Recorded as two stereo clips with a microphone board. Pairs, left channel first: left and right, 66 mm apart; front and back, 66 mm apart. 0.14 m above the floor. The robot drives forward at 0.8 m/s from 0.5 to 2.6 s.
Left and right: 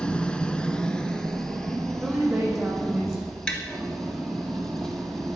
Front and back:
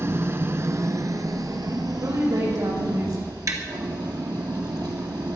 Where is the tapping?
160° left, 2.5 m.